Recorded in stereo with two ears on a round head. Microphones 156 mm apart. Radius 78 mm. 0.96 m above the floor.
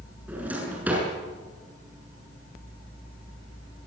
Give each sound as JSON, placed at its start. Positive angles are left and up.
{"t": 0.3, "sound": "a drawer", "side_deg": -10, "distance_m": 7.0}